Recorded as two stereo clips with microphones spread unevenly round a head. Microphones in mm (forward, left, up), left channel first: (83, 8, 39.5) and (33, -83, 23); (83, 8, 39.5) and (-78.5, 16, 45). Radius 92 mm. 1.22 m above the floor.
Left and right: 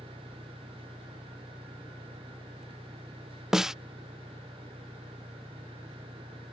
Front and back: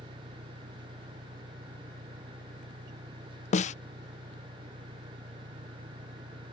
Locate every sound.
0.0 s an engine running: 145° left
3.5 s a snare drum: 40° right